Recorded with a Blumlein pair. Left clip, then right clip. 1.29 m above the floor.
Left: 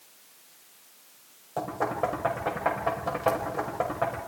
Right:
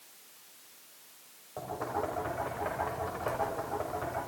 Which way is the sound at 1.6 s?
65° left.